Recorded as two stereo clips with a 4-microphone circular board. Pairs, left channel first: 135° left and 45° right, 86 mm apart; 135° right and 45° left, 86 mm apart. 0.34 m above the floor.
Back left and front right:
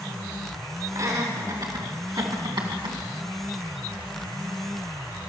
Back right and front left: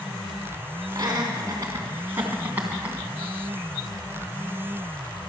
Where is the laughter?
5° right, 3 m; by 3.0 s 30° right, 2.5 m.